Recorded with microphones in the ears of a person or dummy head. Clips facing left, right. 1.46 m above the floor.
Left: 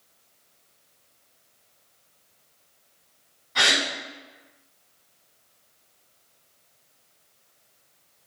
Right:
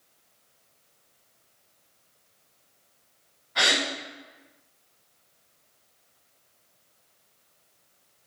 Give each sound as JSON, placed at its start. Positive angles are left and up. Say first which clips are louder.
{"t": 3.5, "sound": "a gasp", "louder": "even", "side_deg": 55, "distance_m": 1.9}